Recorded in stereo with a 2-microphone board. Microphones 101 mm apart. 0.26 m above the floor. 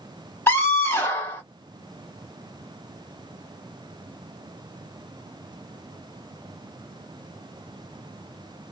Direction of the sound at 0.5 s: 20° left (ahead or behind).